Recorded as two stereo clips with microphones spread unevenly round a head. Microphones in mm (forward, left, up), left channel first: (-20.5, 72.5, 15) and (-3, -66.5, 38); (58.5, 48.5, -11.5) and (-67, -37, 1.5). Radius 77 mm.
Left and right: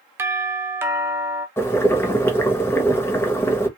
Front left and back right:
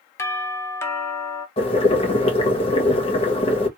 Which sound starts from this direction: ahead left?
Boiling, at 1.6 s.